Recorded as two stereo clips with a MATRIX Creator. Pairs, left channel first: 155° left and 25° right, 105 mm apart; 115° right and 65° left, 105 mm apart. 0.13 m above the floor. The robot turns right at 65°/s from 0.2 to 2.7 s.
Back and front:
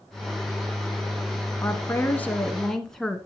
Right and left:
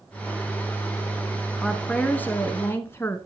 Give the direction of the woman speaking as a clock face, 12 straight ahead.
7 o'clock.